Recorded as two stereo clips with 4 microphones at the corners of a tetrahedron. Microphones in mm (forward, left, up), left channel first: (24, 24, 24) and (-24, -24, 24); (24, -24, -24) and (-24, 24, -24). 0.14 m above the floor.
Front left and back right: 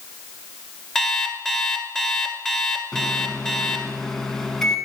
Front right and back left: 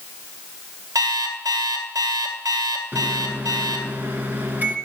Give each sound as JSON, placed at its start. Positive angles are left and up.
{"t": 0.9, "sound": "an alarm clock", "azimuth_deg": 125, "distance_m": 1.5}
{"t": 2.9, "sound": "a microwave", "azimuth_deg": 120, "distance_m": 1.3}